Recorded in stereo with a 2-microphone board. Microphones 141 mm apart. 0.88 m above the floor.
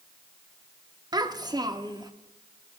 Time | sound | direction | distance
1.1 | a child speaking | 30° right (ahead or behind) | 0.8 m